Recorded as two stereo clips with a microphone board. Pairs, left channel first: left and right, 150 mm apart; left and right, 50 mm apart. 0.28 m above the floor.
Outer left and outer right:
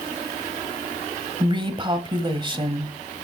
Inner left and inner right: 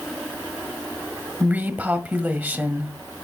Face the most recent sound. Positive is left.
turn(degrees=-35)  # may be behind; listen again after turning